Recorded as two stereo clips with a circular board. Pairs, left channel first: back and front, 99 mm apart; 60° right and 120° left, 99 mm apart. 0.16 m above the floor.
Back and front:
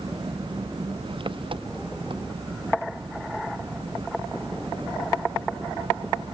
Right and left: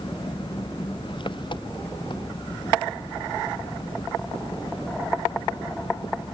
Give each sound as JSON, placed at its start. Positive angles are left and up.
{"t": 0.0, "sound": "an engine running", "azimuth_deg": -25}